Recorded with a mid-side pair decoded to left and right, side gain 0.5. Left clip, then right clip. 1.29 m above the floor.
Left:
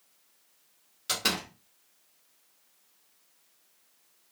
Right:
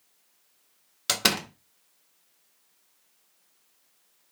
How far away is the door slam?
About 0.8 m.